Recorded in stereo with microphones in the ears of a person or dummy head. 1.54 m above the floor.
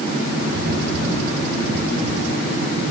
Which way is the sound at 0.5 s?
70° right (ahead or behind).